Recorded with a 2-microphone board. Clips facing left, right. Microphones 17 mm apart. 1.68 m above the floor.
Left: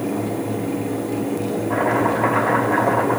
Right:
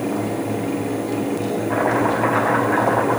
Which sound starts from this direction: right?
Chopping, at 1.7 s.